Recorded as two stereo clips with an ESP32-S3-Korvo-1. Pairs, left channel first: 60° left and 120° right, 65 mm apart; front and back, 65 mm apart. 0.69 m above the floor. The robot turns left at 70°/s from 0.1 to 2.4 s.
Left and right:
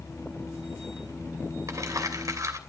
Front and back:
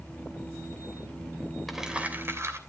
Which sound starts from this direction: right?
Crumpling, at 1.7 s.